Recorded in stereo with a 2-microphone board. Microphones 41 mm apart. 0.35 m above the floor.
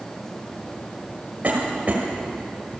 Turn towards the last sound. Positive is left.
turn(degrees=-40)  # may be behind; listen again after turning